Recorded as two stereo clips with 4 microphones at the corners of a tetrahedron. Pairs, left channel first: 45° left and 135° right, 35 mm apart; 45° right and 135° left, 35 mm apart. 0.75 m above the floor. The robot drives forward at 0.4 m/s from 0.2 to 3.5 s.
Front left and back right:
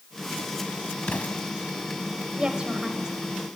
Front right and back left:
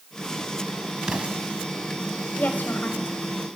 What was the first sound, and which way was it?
An explosion, 75° left.